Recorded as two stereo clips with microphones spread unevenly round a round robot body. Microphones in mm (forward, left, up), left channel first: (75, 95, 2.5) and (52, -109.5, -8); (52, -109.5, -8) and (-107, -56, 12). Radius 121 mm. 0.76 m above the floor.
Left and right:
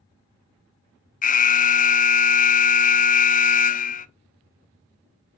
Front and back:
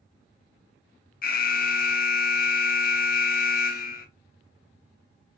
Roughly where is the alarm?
Ahead left.